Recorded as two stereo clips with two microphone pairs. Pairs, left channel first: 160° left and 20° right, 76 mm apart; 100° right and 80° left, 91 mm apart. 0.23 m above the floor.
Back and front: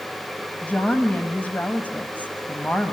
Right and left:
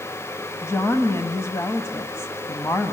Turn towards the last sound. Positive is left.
turn(degrees=-140)